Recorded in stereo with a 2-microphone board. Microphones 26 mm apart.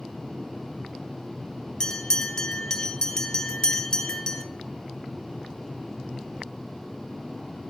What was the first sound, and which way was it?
A bell, 30° left (ahead or behind).